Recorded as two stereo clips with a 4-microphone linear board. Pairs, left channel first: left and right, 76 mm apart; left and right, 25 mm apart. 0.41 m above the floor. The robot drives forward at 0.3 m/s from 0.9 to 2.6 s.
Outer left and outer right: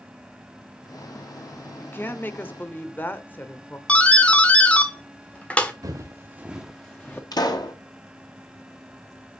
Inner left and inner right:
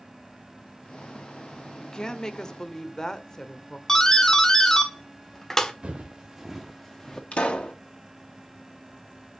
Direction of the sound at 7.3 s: 60° left (ahead or behind).